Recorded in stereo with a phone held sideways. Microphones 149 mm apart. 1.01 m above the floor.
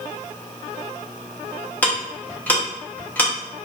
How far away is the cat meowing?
No cat meowing in this recording.